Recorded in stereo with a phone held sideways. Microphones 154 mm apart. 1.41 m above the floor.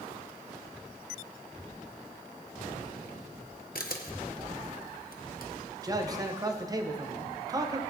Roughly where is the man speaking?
Right.